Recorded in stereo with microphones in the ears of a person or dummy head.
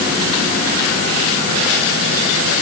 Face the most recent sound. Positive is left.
No sound to turn to.